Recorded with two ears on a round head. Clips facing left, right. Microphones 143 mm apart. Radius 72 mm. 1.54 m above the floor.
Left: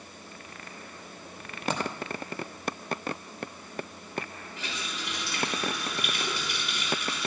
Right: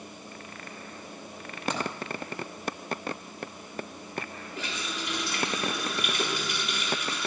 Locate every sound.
1.7 s a dropped coin: 25° left (ahead or behind), 2.5 m
4.6 s a running tap: 45° right (ahead or behind), 4 m